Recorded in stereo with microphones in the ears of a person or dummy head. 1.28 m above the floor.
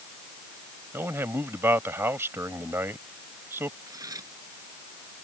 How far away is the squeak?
No squeak in this recording.